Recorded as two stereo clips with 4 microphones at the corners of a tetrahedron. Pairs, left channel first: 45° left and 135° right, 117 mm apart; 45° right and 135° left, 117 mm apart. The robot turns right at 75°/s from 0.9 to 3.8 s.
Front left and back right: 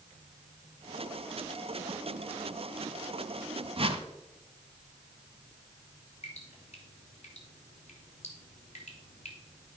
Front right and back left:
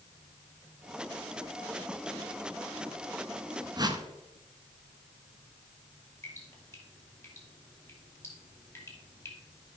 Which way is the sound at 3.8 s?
175° right.